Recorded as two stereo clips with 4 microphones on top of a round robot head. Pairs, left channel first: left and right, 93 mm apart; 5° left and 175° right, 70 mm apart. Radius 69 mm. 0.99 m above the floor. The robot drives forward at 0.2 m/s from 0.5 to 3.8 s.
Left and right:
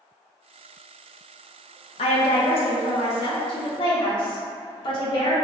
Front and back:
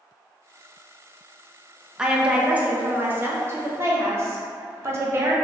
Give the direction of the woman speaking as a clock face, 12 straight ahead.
9 o'clock.